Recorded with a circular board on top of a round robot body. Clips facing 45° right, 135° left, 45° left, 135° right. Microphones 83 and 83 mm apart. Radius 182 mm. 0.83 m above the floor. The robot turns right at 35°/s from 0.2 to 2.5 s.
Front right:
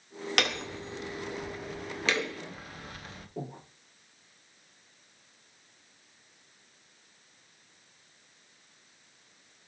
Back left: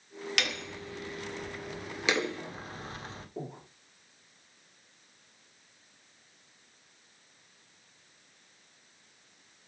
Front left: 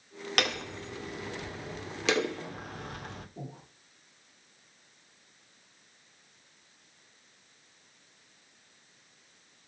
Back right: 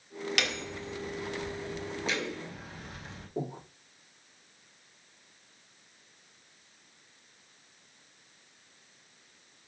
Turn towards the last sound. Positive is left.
turn(degrees=-140)